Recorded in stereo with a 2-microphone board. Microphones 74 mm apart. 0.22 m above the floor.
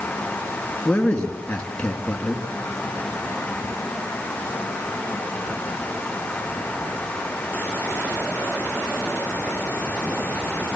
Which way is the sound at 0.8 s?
15° left (ahead or behind).